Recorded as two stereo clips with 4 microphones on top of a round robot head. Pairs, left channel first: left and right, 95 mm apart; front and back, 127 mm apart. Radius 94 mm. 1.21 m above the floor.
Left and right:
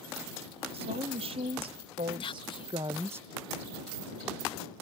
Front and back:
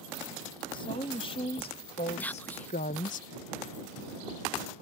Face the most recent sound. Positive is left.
turn(degrees=75)